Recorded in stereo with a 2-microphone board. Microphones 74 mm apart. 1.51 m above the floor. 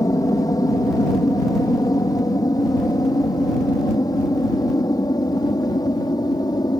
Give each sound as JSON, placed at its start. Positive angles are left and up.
{"t": 0.0, "sound": "an aircraft", "side_deg": 60}